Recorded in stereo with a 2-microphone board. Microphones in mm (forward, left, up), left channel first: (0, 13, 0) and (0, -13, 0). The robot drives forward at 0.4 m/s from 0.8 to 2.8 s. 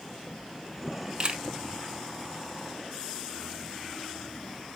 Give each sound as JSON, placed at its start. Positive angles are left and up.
{"t": 1.2, "sound": "a camera shutter", "side_deg": -35, "distance_m": 0.6}